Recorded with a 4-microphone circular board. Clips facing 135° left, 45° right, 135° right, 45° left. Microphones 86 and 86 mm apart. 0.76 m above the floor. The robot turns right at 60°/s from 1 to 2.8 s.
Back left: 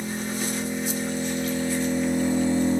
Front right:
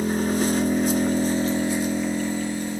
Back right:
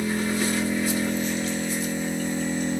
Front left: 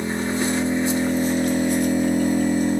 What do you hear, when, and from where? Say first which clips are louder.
0.0 s an engine running: front right 7 dB, front left 2 dB; 20° right, 1.0 m; by 2.8 s 90° left, 1.0 m